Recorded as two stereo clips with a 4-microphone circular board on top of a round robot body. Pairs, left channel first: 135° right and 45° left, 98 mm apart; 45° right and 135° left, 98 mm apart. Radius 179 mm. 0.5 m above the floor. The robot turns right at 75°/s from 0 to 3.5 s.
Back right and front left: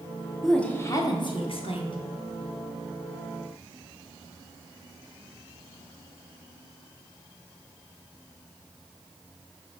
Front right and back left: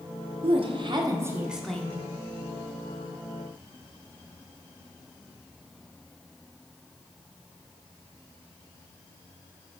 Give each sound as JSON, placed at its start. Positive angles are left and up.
{"t": 0.4, "sound": "a woman speaking", "azimuth_deg": 135, "distance_m": 1.4}